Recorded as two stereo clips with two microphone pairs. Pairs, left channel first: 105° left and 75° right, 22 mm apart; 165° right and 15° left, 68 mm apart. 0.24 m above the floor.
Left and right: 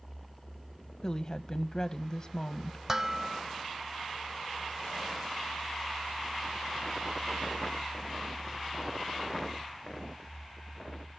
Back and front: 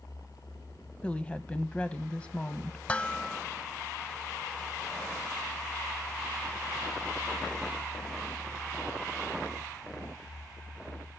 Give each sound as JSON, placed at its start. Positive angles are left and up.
{"t": 1.0, "sound": "a woman speaking", "azimuth_deg": 130, "distance_m": 1.1}
{"t": 2.9, "sound": "dishes clattering", "azimuth_deg": -115, "distance_m": 0.6}